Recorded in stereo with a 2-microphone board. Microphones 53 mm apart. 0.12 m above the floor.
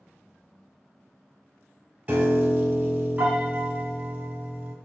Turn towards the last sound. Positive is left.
turn(degrees=-35)  # may be behind; listen again after turning